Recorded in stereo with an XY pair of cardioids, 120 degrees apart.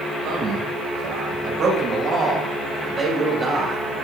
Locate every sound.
0.2 s a man speaking: 60° right, 7.5 m; by 3.8 s 15° right, 6.5 m